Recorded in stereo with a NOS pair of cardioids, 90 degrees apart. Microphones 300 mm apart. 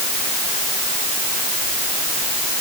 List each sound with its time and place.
Only background noise.